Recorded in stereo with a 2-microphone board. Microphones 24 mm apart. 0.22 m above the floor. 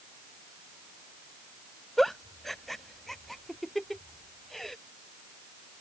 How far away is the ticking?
I don't hear ticking.